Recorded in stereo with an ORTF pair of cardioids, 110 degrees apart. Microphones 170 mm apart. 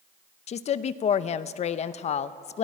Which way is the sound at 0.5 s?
45° left.